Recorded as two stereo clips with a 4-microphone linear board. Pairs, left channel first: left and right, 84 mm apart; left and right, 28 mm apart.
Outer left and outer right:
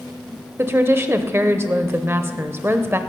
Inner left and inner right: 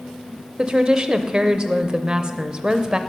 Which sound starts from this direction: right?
A woman speaking, at 0.6 s.